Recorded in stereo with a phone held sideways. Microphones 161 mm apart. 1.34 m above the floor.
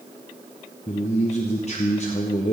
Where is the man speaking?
45° left (ahead or behind), 0.8 m.